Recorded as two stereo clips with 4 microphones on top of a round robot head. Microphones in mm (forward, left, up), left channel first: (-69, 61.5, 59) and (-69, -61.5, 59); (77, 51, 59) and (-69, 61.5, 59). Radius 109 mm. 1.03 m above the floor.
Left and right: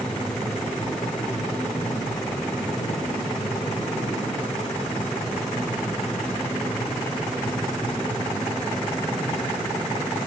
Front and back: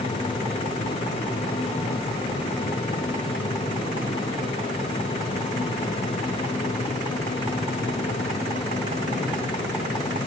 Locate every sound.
Only background noise.